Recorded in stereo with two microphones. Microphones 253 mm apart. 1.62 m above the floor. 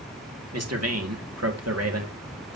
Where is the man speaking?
70° right (ahead or behind), 2 m.